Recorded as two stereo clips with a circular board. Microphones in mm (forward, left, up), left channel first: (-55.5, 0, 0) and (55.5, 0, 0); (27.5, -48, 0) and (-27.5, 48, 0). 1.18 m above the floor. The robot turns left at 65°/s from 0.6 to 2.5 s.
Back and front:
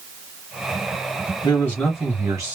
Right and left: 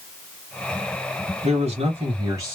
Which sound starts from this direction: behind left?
A man speaking, at 1.4 s.